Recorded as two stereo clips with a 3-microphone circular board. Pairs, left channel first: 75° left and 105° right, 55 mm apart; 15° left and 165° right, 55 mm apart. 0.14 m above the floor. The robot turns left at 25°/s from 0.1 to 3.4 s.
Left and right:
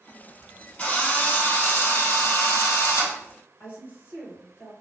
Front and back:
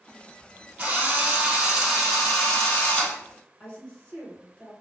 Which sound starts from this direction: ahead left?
A woman speaking, at 3.6 s.